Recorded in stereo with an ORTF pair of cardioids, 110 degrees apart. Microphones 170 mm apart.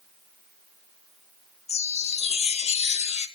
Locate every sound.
1.7 s a chime: 40° left, 1.2 m